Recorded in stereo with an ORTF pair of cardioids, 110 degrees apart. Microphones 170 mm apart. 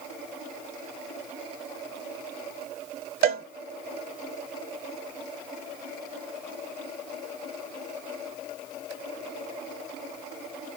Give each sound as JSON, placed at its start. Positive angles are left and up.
{"t": 3.2, "sound": "a cowbell", "azimuth_deg": -60, "distance_m": 0.8}